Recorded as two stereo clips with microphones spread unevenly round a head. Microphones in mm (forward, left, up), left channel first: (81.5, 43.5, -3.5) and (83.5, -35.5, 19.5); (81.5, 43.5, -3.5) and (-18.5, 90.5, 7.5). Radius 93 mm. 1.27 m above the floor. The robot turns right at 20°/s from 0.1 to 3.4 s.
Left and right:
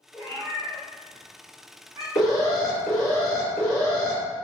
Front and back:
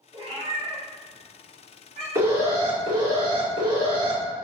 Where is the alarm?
90° left, 1.7 m; by 4.2 s 115° left, 1.7 m.